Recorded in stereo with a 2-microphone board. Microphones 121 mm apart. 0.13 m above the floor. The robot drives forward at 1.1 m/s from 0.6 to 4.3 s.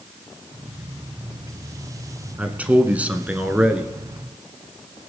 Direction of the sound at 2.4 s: 10° right (ahead or behind).